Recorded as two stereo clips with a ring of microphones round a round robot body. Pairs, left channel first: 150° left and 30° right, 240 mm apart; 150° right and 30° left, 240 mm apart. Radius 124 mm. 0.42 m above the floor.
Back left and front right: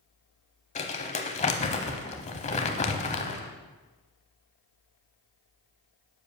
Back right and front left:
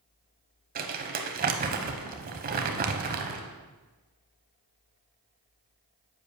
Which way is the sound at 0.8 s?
85° left.